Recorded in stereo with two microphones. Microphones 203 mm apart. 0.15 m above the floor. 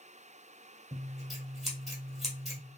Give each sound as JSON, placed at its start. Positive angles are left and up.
{"t": 0.9, "sound": "scissors", "side_deg": 0, "distance_m": 1.8}